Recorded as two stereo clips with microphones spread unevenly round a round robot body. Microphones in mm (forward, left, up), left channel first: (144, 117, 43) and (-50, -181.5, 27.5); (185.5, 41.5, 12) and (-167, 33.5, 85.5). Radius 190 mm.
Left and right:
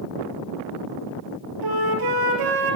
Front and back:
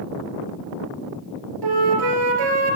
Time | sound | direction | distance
1.6 | a flute | 155° right | 4 m